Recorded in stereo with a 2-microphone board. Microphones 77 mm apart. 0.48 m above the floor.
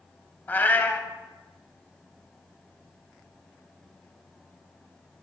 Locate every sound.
0.5 s a cat meowing: 25° left (ahead or behind), 0.6 m